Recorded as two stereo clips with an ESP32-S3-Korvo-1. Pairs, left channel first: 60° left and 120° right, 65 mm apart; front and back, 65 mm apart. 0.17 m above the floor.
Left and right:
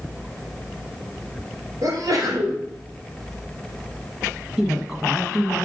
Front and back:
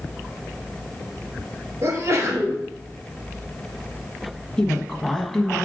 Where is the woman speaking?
60° right, 1.1 m.